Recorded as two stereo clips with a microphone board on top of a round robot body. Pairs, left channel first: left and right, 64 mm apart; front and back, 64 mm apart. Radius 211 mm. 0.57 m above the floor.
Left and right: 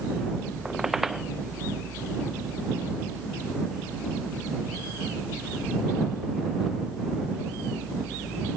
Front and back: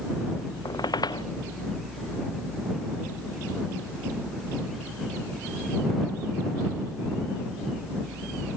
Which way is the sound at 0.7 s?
5° right.